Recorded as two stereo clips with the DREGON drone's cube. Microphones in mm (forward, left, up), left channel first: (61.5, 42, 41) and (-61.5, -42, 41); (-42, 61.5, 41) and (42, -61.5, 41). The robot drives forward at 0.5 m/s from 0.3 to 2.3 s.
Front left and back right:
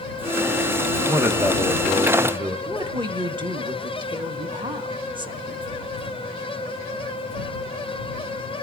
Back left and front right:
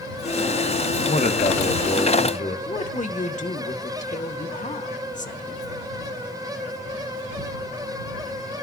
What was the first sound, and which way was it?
A man speaking, 140° left.